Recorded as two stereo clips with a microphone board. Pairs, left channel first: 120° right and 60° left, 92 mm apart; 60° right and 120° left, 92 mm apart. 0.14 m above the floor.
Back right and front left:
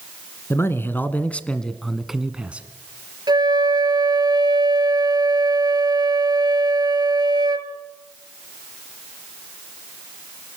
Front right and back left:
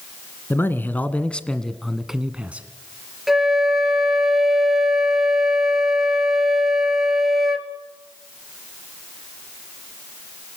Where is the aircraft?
No aircraft in this recording.